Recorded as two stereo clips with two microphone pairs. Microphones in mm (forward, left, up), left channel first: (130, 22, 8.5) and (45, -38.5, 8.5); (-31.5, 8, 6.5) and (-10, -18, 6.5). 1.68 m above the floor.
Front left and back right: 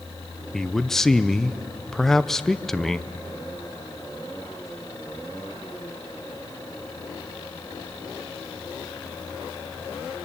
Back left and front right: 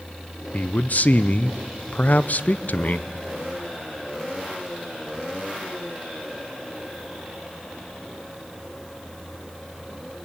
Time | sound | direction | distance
0.5 | a man speaking | 115° left | 0.6 m